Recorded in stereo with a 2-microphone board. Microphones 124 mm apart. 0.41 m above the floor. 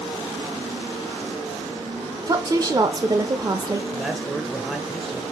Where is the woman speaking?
30° right (ahead or behind), 0.9 m.